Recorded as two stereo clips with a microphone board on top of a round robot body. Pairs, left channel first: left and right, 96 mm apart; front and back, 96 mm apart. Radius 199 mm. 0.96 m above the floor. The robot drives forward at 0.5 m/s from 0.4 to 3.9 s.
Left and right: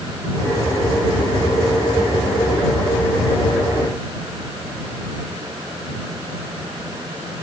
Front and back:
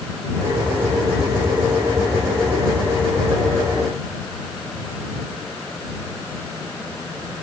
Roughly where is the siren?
No siren in this recording.